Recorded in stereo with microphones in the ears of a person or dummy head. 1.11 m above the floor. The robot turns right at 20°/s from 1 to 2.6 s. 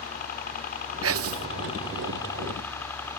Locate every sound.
0.0 s a helicopter: 140° left; by 3.2 s 170° left
1.0 s whispering: 65° right (ahead or behind); by 1.5 s 70° right (ahead or behind)